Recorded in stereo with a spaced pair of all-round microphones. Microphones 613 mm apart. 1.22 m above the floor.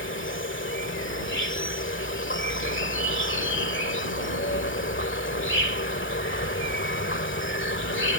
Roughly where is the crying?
I don't hear crying.